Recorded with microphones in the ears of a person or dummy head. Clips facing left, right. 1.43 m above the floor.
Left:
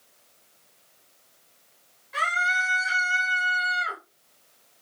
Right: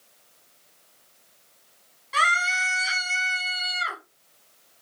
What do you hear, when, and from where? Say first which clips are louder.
2.1 s a scream: right 2 dB; 65° right (ahead or behind), 1.8 m